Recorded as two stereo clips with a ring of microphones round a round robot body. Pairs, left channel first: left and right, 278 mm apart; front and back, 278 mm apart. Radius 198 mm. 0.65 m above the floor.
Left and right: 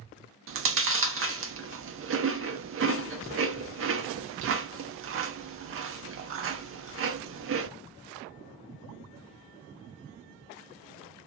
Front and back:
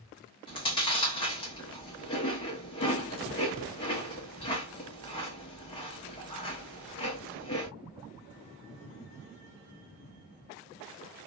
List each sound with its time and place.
0.5 s chewing: 70° right, 0.6 m